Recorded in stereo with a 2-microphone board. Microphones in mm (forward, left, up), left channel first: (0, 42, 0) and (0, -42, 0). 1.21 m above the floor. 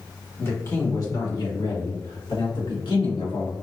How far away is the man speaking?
About 1.2 m.